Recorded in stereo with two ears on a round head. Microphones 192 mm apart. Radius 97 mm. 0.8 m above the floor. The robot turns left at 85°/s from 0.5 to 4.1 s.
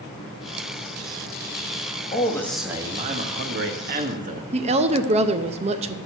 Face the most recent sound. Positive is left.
turn(degrees=-30)  # may be behind; listen again after turning